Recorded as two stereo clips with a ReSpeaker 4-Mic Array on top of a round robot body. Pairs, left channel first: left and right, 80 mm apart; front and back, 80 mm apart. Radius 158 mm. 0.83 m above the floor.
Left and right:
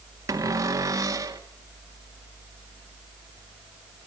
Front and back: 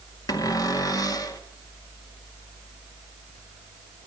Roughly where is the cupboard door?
Ahead right.